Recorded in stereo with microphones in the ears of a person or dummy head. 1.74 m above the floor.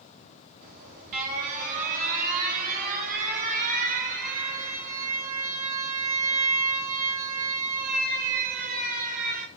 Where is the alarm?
50° right (ahead or behind), 4.5 m.